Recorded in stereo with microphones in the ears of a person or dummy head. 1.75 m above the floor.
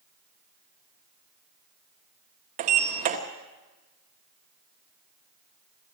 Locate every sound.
2.6 s a sliding door: 30° right (ahead or behind), 1.5 m